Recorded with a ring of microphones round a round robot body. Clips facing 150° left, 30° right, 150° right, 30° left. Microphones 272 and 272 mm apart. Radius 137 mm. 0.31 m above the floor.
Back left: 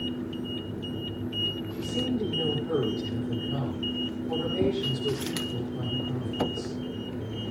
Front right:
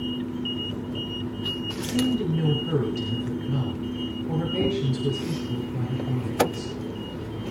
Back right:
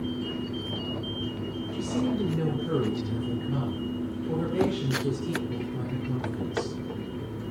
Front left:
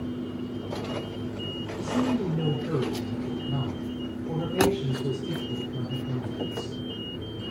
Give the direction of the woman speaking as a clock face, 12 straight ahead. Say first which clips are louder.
Front right 5 dB, front left 2 dB; 2 o'clock.